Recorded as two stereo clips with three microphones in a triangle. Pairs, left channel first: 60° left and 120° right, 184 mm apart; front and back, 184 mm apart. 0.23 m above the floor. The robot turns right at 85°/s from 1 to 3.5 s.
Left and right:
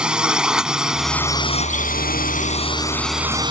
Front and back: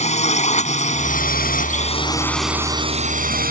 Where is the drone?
35° right; by 3.5 s 175° right.